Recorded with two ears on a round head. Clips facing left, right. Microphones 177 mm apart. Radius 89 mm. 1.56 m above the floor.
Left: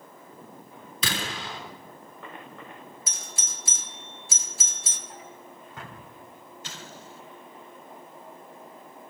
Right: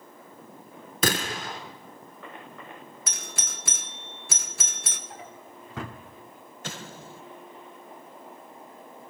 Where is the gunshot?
45° right (ahead or behind), 3.5 m.